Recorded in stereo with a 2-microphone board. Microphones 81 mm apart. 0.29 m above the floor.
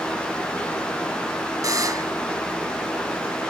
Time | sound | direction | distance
1.6 | a buzzer | 50° right (ahead or behind) | ?